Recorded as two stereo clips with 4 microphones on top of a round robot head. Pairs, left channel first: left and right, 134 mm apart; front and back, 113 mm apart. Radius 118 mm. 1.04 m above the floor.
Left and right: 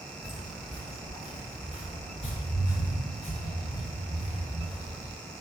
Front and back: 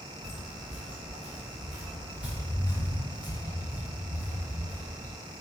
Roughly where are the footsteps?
Ahead.